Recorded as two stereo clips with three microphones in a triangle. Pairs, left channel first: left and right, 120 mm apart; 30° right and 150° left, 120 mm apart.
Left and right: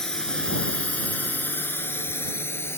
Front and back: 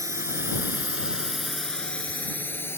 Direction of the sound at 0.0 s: 170° left.